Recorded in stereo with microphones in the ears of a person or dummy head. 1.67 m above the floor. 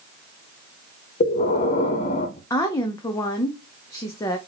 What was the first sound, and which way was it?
Breathing, 40° left (ahead or behind).